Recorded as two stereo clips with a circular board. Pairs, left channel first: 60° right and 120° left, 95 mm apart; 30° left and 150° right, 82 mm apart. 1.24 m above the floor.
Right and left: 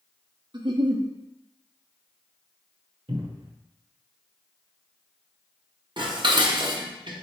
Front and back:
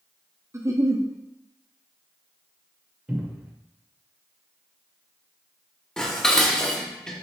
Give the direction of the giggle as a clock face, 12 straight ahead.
7 o'clock.